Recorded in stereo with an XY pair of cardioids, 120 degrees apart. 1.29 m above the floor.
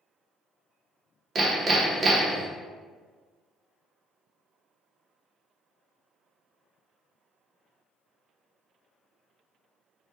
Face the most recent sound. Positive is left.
turn(degrees=-40)